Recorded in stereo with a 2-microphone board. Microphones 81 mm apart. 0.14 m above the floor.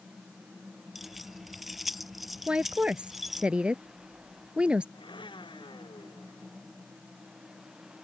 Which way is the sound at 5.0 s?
80° left.